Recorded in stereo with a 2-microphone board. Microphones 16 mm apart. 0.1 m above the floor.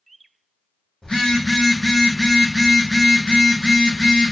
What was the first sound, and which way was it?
A phone buzzing, 75° left (ahead or behind).